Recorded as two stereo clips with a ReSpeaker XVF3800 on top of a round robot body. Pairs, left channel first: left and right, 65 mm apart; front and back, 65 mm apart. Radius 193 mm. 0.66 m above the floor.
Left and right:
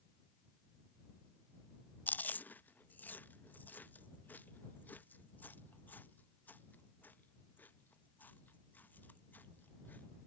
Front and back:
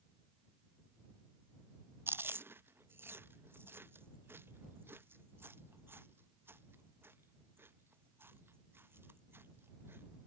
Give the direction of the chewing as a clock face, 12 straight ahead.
7 o'clock.